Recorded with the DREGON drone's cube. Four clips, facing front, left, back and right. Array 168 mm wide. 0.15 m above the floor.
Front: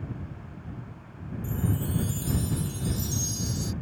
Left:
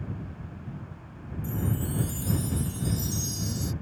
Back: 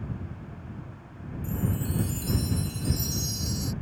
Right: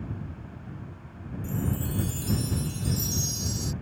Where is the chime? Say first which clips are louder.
Even, even; 100° right.